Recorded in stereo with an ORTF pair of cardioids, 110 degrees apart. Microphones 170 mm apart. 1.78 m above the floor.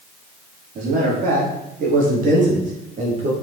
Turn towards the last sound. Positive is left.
turn(degrees=-45)